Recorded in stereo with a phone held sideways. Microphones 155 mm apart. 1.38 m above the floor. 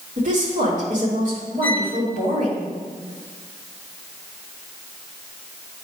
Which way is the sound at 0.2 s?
55° right (ahead or behind).